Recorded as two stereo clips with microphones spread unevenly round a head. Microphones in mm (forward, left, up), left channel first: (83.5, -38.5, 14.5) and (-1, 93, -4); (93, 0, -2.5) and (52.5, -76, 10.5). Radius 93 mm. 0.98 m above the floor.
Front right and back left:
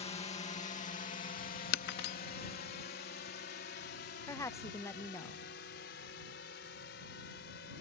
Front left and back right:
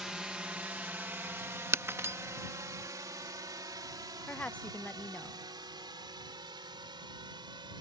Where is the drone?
35° right; by 7.8 s 90° right.